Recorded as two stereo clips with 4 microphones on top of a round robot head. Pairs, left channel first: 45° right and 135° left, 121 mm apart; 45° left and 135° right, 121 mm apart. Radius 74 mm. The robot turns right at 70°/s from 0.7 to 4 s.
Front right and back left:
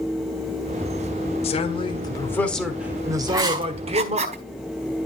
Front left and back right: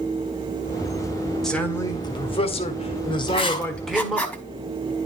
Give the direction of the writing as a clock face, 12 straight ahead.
10 o'clock.